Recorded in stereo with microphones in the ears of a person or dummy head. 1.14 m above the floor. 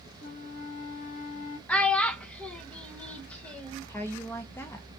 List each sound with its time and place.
0.2 s a flute: 45° left (ahead or behind), 0.7 m
1.7 s a child speaking: 5° left (ahead or behind), 0.6 m
3.9 s a woman speaking: 5° left (ahead or behind), 0.6 m